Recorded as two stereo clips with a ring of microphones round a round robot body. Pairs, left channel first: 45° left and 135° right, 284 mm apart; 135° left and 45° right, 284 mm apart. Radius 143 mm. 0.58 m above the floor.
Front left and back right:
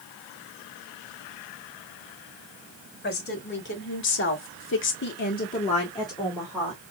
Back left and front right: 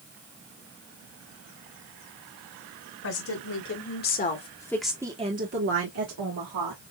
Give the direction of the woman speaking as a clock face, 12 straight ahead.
9 o'clock.